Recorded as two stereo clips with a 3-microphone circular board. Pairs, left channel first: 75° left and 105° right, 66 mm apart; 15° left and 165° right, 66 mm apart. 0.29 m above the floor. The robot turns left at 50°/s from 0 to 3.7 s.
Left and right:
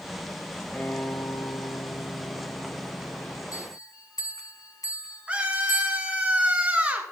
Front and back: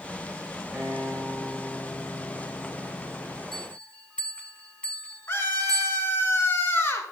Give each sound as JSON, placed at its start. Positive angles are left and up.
{"t": 0.7, "sound": "a guitar", "azimuth_deg": 140, "distance_m": 2.5}
{"t": 3.5, "sound": "a bell", "azimuth_deg": 95, "distance_m": 1.4}
{"t": 5.3, "sound": "a scream", "azimuth_deg": -35, "distance_m": 3.5}